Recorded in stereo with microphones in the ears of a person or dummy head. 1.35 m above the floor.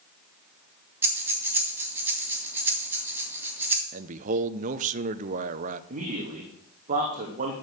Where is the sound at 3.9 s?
45° right (ahead or behind), 0.7 m.